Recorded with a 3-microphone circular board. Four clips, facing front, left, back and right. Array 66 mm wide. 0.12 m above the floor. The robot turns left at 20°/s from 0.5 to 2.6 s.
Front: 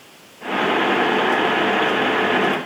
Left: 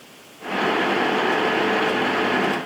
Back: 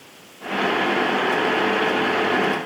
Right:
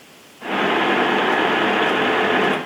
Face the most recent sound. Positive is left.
No sound to turn to.